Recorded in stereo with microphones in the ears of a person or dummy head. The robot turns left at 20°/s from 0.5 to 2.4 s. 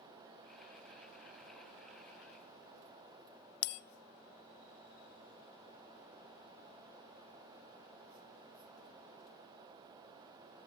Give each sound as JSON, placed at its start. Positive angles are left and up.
{"t": 3.6, "sound": "a bell", "side_deg": 75, "distance_m": 0.5}